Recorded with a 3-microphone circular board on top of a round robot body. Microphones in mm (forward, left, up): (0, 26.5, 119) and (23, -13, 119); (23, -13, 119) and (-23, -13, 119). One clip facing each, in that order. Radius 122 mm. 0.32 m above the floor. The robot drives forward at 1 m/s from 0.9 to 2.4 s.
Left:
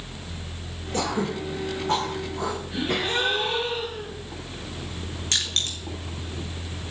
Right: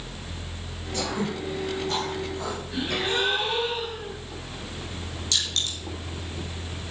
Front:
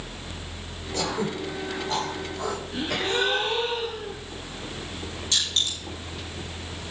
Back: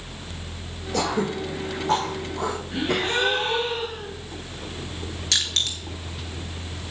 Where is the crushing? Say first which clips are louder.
Left 1 dB, back 1 dB; 170° left, 2 m.